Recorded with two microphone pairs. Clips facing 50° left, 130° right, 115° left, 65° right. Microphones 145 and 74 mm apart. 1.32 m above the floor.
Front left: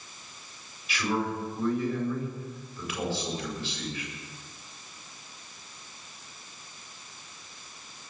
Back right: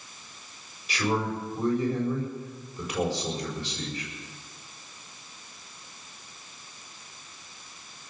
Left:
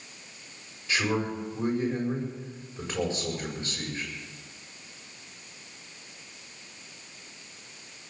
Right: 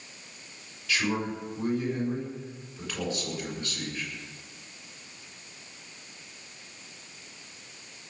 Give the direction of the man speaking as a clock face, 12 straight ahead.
6 o'clock.